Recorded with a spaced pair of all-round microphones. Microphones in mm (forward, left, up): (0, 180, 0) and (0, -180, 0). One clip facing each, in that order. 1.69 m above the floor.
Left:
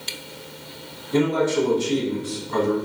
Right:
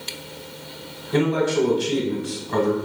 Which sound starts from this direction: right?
A man speaking, at 1.1 s.